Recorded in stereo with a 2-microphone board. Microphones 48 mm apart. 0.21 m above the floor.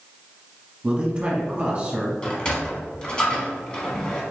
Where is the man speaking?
25° right (ahead or behind), 1.2 m.